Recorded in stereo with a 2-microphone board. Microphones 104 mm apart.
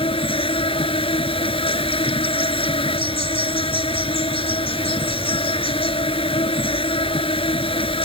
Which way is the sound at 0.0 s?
65° left (ahead or behind).